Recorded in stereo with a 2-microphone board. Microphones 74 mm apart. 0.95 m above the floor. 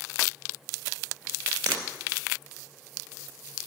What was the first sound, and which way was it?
Breaking glass, 35° right (ahead or behind).